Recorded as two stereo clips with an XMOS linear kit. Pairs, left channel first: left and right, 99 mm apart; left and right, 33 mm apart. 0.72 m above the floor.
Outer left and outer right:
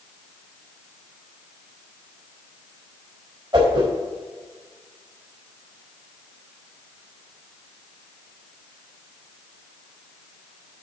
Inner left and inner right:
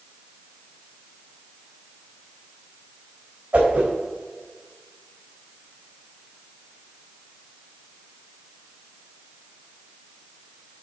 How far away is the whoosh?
About 4 m.